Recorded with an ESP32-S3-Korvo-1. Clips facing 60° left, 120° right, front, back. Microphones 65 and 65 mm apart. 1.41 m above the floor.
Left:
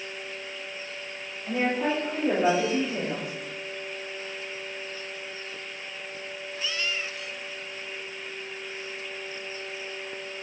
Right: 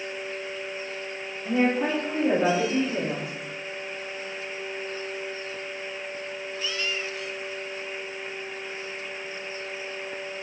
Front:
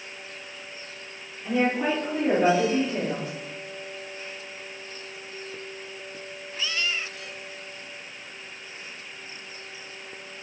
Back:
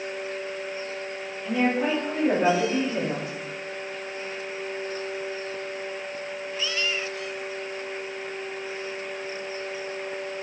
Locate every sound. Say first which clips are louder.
1.4 s a woman speaking: right 3 dB, even; 65° right, 1.5 m; by 3.3 s 95° right, 3.5 m